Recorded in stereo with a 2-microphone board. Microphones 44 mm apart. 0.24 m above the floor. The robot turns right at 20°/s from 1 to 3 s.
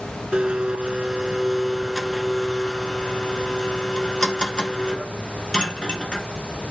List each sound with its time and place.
0.3 s a blender: 20° right, 0.9 m; by 6.3 s 20° left, 0.9 m